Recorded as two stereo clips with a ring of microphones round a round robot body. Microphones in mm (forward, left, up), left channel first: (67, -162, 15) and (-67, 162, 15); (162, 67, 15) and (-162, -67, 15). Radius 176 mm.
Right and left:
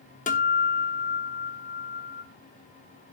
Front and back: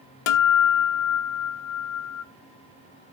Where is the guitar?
5° left, 1.0 m.